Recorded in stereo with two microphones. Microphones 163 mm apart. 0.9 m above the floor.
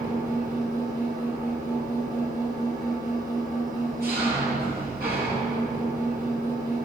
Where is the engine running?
70° right (ahead or behind), 9 m.